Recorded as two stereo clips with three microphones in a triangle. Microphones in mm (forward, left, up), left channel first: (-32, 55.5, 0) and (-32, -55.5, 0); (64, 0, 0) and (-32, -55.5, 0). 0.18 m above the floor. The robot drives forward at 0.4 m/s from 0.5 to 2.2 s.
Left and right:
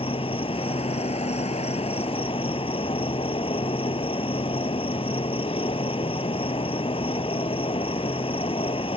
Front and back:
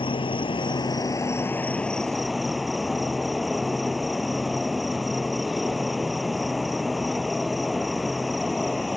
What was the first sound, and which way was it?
An insect, 65° left.